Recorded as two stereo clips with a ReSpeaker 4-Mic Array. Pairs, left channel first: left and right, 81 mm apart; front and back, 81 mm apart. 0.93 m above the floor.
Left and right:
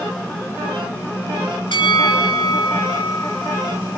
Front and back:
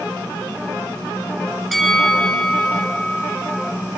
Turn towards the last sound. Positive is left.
turn(degrees=90)